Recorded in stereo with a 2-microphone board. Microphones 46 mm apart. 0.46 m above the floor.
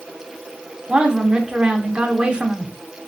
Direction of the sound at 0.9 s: 20° right (ahead or behind).